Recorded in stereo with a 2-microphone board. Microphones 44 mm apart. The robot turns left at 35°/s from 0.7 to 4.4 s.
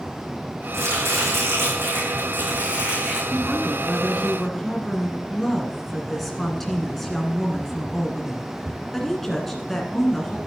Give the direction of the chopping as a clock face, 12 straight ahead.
3 o'clock.